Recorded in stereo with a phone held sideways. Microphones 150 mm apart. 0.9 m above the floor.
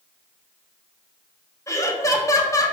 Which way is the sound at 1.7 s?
20° left (ahead or behind).